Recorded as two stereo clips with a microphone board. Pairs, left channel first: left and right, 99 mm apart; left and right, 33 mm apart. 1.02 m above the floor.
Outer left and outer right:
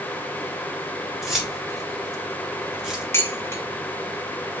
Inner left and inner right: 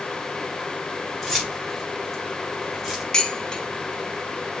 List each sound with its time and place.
1.2 s keys jangling: 5° right (ahead or behind), 3.5 m
3.1 s dishes clattering: 25° left (ahead or behind), 1.7 m